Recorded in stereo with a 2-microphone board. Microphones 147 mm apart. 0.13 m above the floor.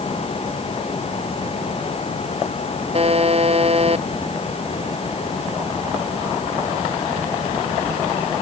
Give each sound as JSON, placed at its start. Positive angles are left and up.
{"t": 2.9, "sound": "a buzzer", "side_deg": -45}